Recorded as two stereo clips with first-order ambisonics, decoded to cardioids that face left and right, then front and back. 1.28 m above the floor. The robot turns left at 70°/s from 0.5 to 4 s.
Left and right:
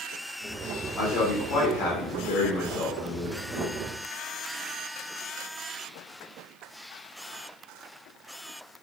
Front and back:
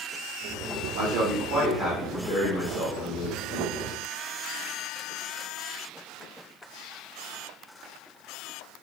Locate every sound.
1.0 s a man speaking: 160° left, 0.8 m; by 3.7 s 35° right, 0.8 m